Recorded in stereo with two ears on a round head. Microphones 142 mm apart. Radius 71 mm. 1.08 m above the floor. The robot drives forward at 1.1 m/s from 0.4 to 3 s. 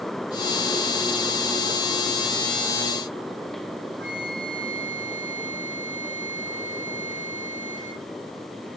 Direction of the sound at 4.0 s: 80° right.